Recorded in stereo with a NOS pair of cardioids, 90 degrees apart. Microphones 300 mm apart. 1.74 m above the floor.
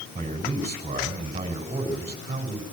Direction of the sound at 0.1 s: 20° right.